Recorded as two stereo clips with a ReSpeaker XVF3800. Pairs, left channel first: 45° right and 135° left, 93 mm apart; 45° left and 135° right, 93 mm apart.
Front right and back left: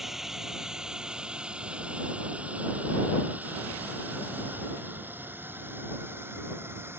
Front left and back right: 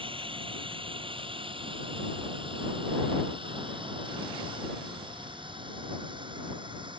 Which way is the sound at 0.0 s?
140° right.